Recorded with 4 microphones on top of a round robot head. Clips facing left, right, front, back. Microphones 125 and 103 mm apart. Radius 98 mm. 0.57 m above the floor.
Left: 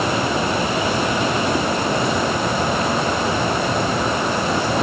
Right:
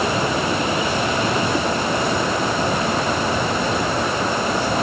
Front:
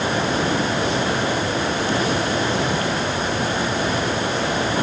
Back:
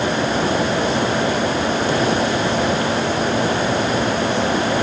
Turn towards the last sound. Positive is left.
No sound to turn to.